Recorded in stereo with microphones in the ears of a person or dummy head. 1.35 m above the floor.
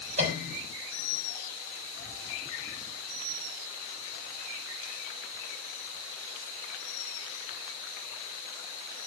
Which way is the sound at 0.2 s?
45° right (ahead or behind).